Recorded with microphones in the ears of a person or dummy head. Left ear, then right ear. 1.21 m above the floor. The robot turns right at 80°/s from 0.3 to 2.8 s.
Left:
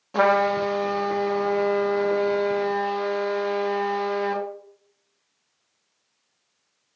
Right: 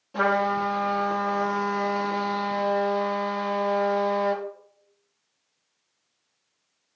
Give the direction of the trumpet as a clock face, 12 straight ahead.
7 o'clock.